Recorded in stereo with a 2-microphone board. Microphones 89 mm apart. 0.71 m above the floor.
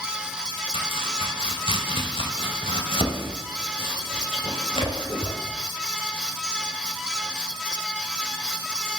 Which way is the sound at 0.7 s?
75° left (ahead or behind).